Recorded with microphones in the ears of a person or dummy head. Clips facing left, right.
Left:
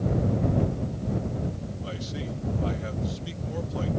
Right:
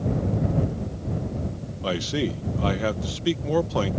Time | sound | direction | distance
1.8 | a man speaking | 70° right (ahead or behind) | ?